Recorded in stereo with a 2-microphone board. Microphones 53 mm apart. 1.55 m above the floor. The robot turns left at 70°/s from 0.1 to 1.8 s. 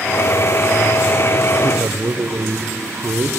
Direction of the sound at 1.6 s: 55° right (ahead or behind).